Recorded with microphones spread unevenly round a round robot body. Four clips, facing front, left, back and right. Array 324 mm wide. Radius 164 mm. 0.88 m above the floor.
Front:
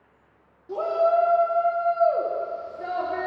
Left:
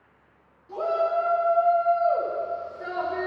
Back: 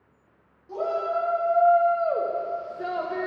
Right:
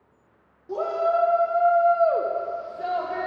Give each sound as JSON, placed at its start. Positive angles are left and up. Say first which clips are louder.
{"t": 0.7, "sound": "a shout", "louder": "right 1 dB, front 5 dB", "azimuth_deg": -55, "distance_m": 2.0}